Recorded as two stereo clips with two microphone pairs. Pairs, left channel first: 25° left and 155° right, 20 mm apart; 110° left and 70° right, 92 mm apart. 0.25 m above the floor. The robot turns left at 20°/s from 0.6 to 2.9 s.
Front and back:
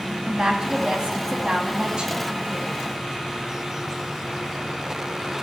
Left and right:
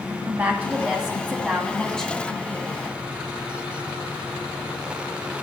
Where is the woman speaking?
140° right, 2 m; by 3.0 s 175° left, 2 m.